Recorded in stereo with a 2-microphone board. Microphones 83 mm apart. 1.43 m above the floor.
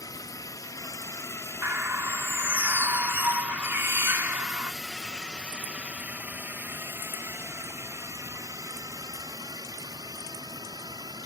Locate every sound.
0.0 s a drone: 50° left (ahead or behind); by 11.3 s 55° right (ahead or behind)
1.6 s a bird: 30° right (ahead or behind)